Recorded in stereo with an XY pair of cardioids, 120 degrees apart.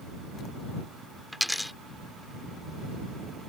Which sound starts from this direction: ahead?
A dropped coin, at 1.3 s.